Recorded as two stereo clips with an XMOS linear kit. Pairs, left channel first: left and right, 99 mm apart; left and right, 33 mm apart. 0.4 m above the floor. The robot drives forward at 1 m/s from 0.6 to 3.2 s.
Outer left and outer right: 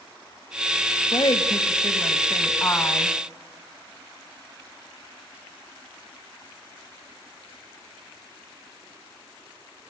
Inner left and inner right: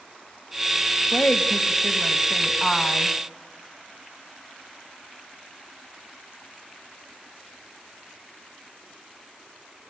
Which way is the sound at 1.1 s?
50° left (ahead or behind).